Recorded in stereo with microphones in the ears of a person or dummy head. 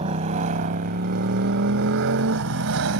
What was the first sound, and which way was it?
A motorcycle, 40° right (ahead or behind).